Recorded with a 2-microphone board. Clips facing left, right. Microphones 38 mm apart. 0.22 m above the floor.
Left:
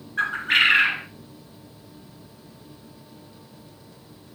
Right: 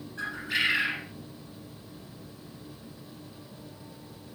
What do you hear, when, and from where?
0.2 s a bird: 55° left (ahead or behind), 1.5 m